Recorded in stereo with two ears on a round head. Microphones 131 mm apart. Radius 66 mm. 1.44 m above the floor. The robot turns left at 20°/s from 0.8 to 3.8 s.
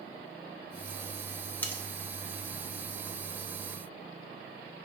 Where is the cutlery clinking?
10° left (ahead or behind), 0.7 m; by 1.8 s 15° left (ahead or behind), 0.7 m.